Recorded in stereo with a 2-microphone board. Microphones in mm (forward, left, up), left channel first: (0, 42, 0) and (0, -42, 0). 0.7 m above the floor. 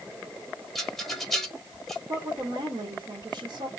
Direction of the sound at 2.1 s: 70° right (ahead or behind).